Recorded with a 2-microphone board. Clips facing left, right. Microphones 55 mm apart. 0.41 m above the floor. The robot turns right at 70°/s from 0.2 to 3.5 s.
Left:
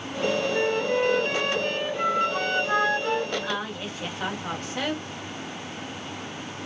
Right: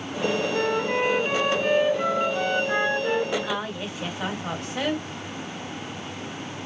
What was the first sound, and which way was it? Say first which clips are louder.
A flute: even; 85° right.